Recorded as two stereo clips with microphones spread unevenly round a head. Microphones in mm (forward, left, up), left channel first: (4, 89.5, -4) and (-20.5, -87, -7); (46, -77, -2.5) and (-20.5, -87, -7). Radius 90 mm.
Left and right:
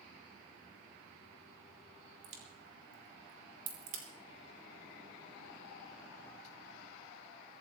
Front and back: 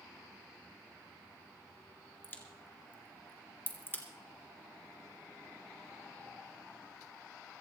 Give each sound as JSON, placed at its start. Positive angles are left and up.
{"t": 2.2, "sound": "a crack", "azimuth_deg": -50, "distance_m": 3.5}